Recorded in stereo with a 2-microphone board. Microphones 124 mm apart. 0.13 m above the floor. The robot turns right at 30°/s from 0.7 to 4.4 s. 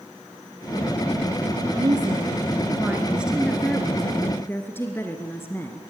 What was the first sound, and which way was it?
A woman speaking, 55° right.